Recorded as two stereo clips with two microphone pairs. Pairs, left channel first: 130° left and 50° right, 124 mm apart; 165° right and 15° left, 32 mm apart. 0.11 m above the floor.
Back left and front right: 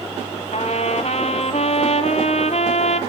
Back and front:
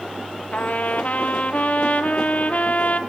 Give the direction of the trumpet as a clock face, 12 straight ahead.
7 o'clock.